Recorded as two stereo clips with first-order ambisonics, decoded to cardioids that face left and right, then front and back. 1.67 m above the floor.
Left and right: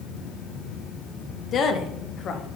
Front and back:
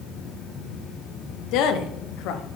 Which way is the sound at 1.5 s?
30° left.